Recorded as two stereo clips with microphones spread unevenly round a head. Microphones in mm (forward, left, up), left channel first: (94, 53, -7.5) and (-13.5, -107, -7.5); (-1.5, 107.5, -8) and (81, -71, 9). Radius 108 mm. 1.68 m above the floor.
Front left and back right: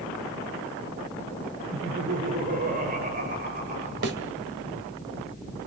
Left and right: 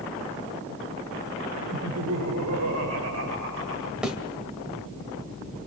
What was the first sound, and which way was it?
Laughter, 80° right.